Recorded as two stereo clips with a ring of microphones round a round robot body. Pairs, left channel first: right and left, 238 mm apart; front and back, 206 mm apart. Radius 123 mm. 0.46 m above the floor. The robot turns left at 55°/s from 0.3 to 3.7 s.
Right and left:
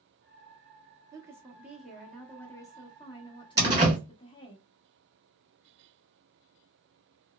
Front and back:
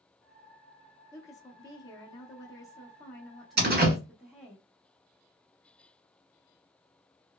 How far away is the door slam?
About 1.4 m.